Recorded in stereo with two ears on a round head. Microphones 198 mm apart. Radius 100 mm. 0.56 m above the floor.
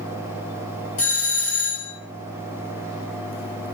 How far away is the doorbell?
About 3.5 m.